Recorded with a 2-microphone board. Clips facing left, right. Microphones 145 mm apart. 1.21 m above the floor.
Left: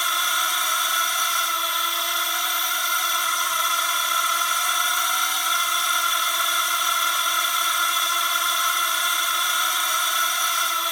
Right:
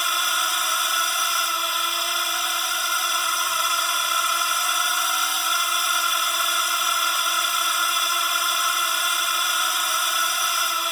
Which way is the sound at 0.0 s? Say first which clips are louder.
Even; centre (ahead or behind).